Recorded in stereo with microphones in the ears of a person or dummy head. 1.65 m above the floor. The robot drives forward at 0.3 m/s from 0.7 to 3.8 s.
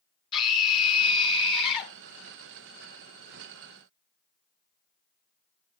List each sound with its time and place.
0.3 s a scream: 25° left (ahead or behind), 2.5 m; by 1.9 s 30° left (ahead or behind), 2 m